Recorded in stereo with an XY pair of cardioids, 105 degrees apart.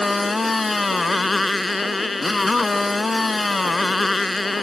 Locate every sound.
0.0 s a motorcycle: 20° left